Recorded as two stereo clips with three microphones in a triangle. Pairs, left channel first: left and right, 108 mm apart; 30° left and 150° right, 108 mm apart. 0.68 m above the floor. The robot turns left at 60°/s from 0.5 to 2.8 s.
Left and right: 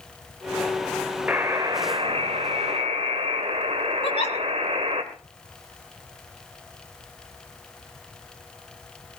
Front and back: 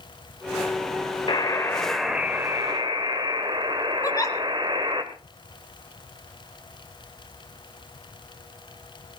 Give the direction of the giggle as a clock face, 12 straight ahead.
9 o'clock.